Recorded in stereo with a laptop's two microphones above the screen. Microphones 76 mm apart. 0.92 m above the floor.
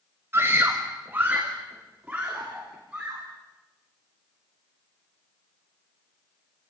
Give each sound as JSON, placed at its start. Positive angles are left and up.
{"t": 0.3, "sound": "a scream", "side_deg": -30, "distance_m": 1.3}